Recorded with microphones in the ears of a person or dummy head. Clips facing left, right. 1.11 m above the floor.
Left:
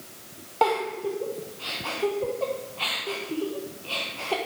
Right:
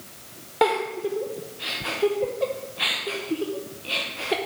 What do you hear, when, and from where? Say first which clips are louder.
0.6 s a giggle: right 2 dB; 15° right (ahead or behind), 0.8 m